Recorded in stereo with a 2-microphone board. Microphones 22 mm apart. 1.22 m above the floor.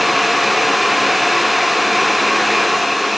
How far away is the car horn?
No car horn in this recording.